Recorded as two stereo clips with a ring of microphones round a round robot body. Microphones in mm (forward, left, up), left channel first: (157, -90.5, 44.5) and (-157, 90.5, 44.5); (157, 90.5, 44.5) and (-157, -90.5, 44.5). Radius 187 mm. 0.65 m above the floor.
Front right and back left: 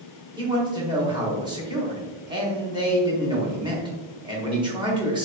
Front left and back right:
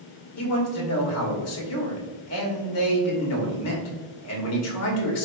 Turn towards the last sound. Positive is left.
turn(degrees=75)